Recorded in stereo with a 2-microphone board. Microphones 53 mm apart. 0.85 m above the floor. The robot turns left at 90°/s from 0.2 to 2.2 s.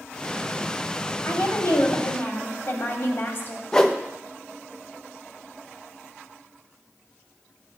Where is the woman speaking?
125° left, 2.5 m; by 3.6 s 40° left, 2.5 m.